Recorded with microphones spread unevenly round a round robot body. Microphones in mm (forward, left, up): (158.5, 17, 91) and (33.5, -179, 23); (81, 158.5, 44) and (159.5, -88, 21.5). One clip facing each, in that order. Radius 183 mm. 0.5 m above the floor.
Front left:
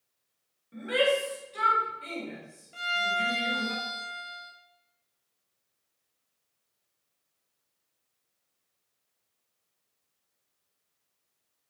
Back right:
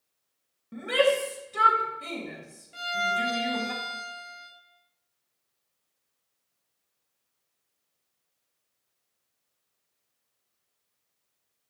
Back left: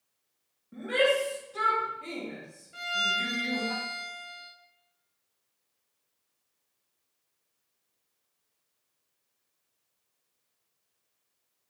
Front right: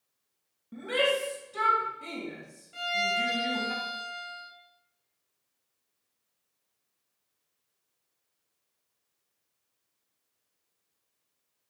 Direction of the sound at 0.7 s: 125° right.